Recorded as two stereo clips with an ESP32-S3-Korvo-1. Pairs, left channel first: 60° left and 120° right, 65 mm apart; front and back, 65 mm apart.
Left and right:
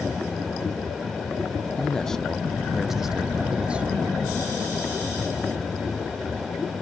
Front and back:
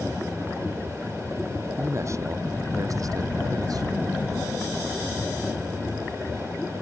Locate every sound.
1.8 s a man speaking: 140° left; by 3.9 s 170° left